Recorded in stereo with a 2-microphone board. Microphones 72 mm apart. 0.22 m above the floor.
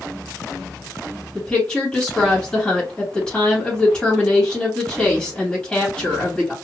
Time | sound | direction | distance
1.4 | a woman speaking | 10° left (ahead or behind) | 1.6 m